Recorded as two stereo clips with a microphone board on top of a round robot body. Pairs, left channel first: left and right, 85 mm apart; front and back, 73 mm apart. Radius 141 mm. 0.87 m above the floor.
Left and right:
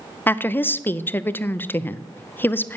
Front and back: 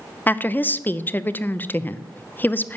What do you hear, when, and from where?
0.3 s a woman speaking: 40° left, 0.8 m